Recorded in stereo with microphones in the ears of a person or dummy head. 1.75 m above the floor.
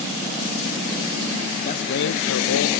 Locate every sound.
1.6 s a man speaking: 40° left (ahead or behind), 0.8 m; by 2.7 s 70° left (ahead or behind), 0.9 m